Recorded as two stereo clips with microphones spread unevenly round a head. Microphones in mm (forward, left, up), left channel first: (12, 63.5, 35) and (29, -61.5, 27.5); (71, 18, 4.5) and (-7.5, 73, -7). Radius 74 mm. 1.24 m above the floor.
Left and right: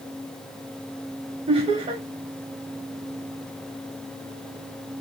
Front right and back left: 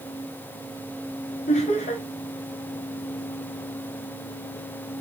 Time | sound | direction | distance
1.5 | laughter | 50° right | 0.8 m